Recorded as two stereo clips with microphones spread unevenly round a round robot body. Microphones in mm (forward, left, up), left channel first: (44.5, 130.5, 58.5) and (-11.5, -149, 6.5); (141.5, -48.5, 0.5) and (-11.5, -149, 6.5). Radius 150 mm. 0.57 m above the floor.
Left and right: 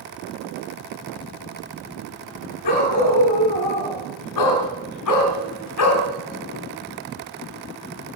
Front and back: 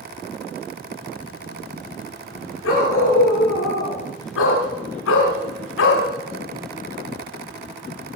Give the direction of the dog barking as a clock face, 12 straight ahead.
10 o'clock.